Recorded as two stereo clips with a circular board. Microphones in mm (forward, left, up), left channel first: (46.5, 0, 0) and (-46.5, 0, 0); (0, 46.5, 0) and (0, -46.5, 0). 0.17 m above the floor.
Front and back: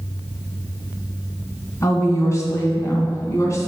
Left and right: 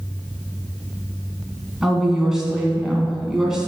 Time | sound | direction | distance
1.8 | a woman speaking | 10° right | 1.8 m